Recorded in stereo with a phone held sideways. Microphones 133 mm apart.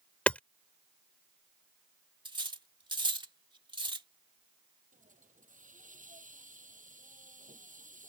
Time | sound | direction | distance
0.3 | hammering | 10° left (ahead or behind) | ?
2.2 | cutlery clinking | 35° right (ahead or behind) | ?
4.9 | a hiss | 75° right (ahead or behind) | ?